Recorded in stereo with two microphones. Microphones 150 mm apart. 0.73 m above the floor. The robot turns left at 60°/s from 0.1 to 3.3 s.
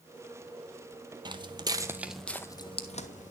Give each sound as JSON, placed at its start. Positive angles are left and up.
{"t": 1.2, "sound": "footsteps", "side_deg": -30, "distance_m": 0.8}